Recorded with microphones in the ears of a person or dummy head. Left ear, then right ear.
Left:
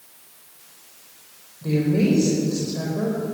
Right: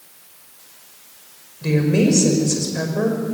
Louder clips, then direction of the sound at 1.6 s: Right 3 dB; 65° right (ahead or behind).